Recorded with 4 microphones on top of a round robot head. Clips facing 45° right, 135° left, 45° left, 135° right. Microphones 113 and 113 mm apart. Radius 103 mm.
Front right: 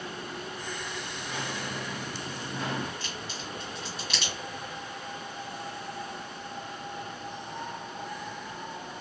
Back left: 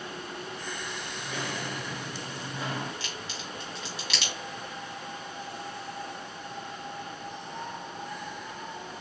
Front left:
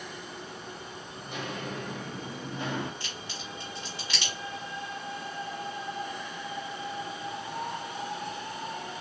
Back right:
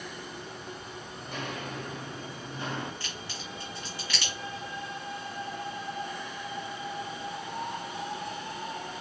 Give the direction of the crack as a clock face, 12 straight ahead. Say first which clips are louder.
Front right 1 dB, even; 8 o'clock.